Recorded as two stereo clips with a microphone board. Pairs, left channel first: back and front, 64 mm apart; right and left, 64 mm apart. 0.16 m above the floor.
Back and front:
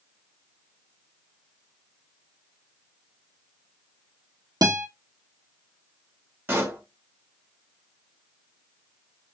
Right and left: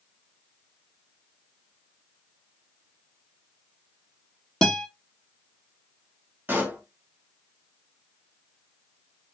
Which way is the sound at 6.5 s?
40° left.